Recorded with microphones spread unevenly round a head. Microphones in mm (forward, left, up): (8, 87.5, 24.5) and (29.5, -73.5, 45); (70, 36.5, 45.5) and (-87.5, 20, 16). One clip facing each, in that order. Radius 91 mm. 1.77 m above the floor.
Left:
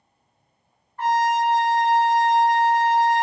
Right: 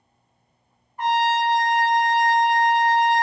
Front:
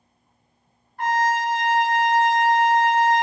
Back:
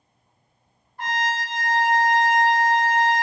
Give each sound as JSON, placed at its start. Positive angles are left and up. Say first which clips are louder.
{"t": 1.0, "sound": "a trumpet", "louder": "left 1 dB, front 6 dB", "azimuth_deg": -15, "distance_m": 0.8}